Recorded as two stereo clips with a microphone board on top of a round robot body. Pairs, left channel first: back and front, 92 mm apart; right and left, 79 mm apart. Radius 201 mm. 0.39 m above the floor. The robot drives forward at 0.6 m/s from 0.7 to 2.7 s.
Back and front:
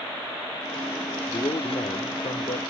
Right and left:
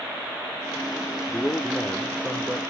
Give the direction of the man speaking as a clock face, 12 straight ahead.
5 o'clock.